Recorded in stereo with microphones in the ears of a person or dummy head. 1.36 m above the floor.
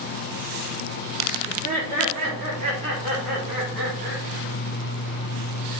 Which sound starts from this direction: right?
Laughter, at 1.5 s.